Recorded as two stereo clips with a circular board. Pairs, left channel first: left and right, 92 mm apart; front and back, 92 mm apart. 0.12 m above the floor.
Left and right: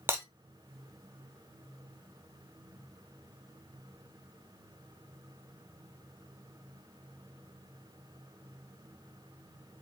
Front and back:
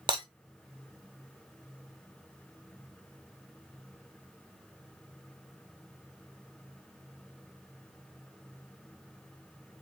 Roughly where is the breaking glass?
Behind right.